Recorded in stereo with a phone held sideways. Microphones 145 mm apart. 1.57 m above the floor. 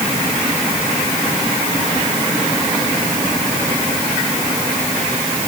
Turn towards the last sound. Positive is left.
No sound to turn to.